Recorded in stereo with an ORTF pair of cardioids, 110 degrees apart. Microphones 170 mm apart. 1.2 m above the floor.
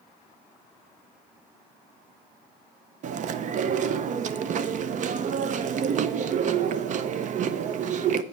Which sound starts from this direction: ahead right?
Chewing, at 3.0 s.